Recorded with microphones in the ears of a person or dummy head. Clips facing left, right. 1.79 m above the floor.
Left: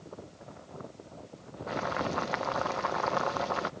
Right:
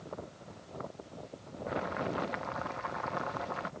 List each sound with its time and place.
1.7 s boiling: 60° left (ahead or behind)